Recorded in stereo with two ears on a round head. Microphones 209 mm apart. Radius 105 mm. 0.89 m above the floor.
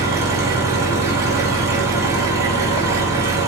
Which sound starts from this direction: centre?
An engine running, at 0.0 s.